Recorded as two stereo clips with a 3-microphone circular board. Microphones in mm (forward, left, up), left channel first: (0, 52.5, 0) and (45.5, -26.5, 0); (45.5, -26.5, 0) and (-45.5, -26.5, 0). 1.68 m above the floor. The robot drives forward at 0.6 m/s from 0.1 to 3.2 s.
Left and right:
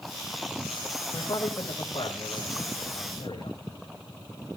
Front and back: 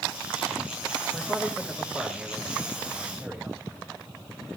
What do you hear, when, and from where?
1.1 s a man speaking: 90° left, 3 m; by 3.6 s 115° left, 3 m